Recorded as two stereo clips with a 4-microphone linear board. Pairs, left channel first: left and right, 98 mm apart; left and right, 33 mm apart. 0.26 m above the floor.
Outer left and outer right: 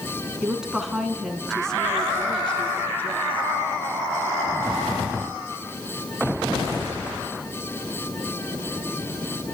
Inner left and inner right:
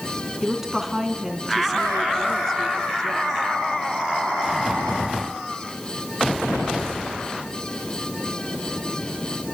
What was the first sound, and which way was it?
A woman speaking, 10° right (ahead or behind).